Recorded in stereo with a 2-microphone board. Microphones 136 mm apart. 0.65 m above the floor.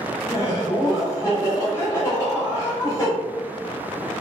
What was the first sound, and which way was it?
Laughter, 20° left (ahead or behind).